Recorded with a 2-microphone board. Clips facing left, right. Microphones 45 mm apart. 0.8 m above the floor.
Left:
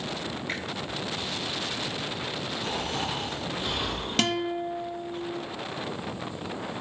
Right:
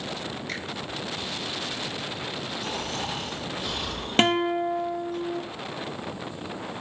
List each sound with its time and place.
0.5 s a finger snap: 20° left (ahead or behind), 5 m
2.6 s snoring: 20° left (ahead or behind), 3 m
4.2 s a guitar: 30° right (ahead or behind), 0.6 m